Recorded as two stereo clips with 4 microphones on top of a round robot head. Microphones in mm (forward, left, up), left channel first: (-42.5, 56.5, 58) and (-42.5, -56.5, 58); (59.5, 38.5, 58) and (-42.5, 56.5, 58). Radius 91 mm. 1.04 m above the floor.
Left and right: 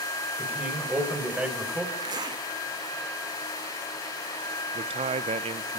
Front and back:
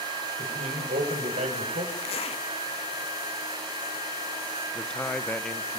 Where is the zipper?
35° right, 2 m.